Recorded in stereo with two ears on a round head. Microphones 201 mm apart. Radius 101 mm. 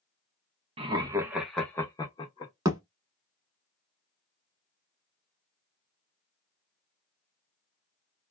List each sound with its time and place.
0.8 s laughter: 25° right (ahead or behind), 0.6 m; by 2.5 s 25° left (ahead or behind), 0.9 m
2.6 s a thud: 15° right (ahead or behind), 0.9 m